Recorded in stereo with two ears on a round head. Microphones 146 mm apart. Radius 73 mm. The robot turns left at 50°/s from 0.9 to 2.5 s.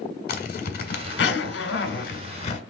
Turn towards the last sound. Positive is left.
turn(degrees=40)